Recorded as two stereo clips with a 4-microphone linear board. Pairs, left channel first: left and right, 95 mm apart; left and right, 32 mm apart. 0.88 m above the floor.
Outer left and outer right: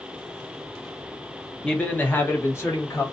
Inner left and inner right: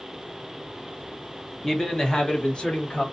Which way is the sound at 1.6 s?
10° left (ahead or behind).